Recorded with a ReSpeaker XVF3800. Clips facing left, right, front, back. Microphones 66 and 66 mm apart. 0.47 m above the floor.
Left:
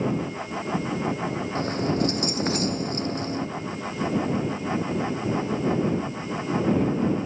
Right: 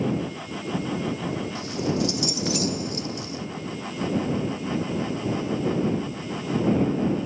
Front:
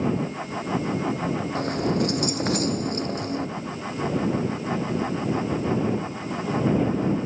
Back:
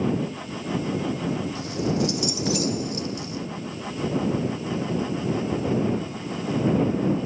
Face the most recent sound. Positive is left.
turn(degrees=40)